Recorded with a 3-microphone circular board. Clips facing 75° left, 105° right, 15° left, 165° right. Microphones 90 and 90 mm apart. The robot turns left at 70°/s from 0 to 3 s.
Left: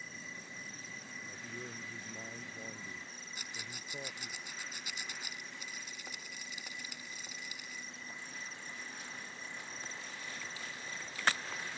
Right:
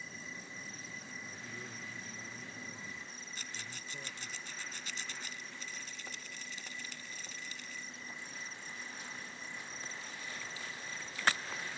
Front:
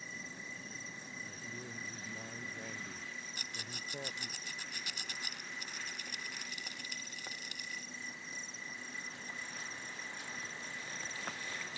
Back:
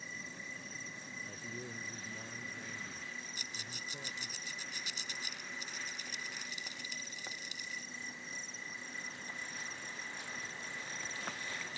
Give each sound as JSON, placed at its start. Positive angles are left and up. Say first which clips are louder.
{"t": 1.3, "sound": "a man speaking", "louder": "left 1 dB, back 3 dB", "azimuth_deg": 155}
{"t": 3.4, "sound": "a rattle", "louder": "left 1 dB, front 1 dB", "azimuth_deg": 0}